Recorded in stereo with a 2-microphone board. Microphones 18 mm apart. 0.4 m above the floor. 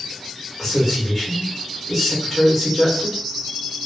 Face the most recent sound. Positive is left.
turn(degrees=-10)  # may be behind; listen again after turning